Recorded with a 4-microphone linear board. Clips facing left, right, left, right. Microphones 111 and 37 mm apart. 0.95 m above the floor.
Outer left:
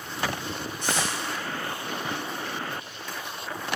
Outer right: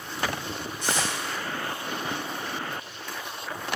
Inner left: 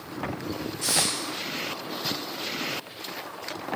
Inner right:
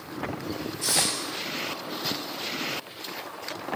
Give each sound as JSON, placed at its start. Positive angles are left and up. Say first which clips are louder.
{"t": 0.8, "sound": "tape being pulled", "louder": "even, even", "side_deg": 60, "distance_m": 1.5}